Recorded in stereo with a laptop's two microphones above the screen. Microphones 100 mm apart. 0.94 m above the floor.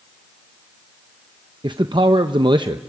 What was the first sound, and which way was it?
A man speaking, 50° right (ahead or behind).